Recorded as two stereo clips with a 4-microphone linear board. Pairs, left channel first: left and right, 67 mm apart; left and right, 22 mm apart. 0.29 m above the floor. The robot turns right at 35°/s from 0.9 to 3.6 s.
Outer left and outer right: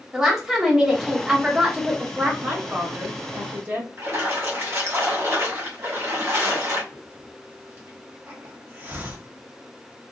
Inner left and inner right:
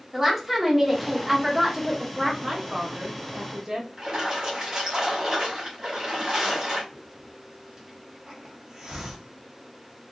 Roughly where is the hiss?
Right.